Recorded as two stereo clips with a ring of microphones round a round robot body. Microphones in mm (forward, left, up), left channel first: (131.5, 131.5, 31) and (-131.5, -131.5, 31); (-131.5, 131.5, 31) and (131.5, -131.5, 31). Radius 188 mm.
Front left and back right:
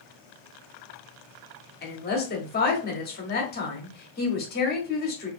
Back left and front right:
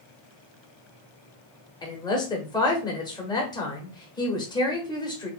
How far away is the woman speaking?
About 1.1 m.